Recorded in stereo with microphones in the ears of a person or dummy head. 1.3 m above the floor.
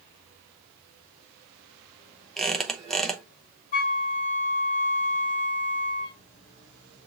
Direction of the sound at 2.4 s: Centre (ahead or behind).